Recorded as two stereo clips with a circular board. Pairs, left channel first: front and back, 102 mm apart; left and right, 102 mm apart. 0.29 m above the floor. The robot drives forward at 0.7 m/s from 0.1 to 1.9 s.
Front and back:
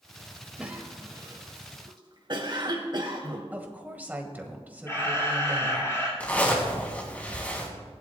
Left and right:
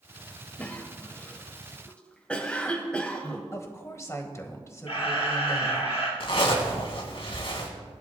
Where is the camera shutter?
65° left, 3.5 m.